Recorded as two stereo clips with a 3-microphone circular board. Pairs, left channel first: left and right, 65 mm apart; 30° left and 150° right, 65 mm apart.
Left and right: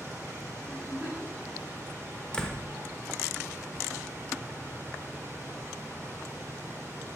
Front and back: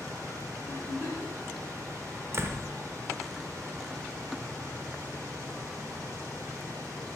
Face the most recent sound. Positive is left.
turn(degrees=165)